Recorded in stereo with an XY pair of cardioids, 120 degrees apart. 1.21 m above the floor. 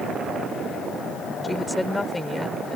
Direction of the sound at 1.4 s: 10° left.